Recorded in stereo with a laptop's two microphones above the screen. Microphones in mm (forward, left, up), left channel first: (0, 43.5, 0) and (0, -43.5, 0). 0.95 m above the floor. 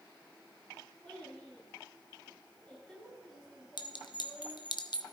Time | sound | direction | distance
1.0 | a child speaking | 10° left (ahead or behind) | 6 m
3.8 | a clink | 60° left (ahead or behind) | 0.8 m